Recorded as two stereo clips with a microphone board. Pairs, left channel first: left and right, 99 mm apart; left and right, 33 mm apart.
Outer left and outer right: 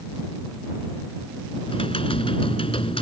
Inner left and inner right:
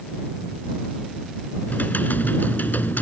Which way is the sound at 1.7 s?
70° left (ahead or behind).